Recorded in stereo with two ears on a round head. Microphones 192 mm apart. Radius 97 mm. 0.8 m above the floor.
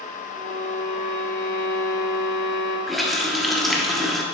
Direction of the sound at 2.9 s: Centre (ahead or behind).